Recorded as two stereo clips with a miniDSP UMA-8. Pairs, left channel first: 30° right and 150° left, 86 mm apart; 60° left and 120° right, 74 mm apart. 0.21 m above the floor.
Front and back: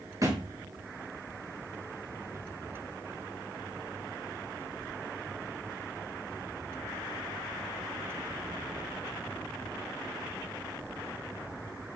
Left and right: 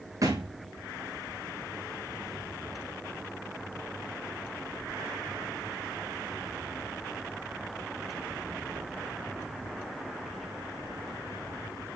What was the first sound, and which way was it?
A thud, 160° right.